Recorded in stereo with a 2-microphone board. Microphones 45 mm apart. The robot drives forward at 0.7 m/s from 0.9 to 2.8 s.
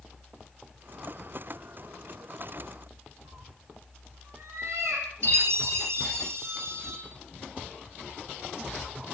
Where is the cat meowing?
85° right, 5.5 m.